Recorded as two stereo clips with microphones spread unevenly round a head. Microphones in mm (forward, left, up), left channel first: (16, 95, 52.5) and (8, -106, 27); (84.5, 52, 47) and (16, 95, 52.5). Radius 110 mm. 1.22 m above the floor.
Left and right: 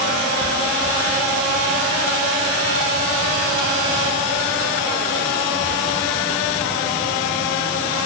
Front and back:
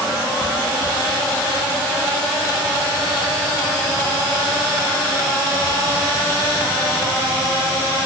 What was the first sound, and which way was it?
Only background noise.